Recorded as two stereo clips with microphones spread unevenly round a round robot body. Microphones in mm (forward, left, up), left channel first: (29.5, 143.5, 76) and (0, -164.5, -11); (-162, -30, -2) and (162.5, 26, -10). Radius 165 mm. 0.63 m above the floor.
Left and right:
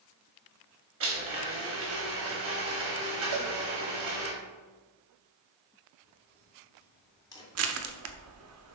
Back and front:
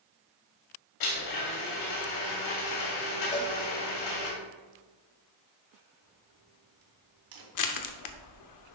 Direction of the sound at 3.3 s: 100° right.